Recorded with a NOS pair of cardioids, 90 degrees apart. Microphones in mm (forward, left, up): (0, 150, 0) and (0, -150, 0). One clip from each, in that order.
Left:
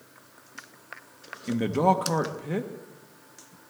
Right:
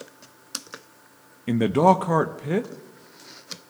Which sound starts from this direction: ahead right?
A man speaking, at 1.5 s.